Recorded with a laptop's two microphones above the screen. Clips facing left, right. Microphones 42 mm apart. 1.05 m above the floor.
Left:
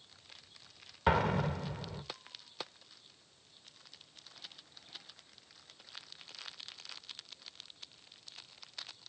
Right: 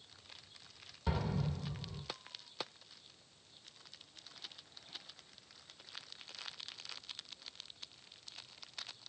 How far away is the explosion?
About 0.6 m.